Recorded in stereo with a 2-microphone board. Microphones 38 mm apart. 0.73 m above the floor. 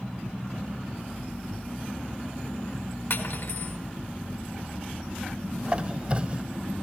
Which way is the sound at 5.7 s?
35° right (ahead or behind).